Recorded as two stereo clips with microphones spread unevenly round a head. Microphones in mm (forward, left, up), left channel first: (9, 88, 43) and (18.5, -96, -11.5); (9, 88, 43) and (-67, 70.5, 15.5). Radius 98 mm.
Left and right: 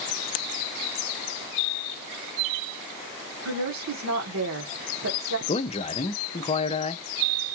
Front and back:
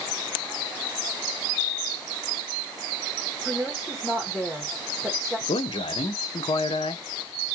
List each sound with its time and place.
3.5 s a woman speaking: 75° right, 1.3 m
5.5 s a man speaking: 30° left, 0.6 m